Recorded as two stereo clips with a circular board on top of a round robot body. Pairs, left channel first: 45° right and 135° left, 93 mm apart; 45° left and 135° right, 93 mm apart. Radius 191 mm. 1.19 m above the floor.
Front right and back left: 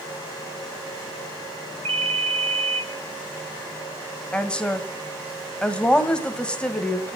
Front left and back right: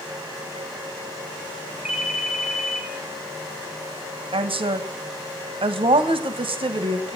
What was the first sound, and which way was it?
A ringtone, 140° left.